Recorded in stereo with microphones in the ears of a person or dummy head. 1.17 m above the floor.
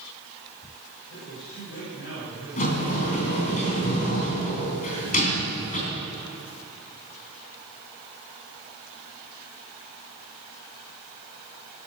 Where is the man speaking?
75° left (ahead or behind), 6.5 m.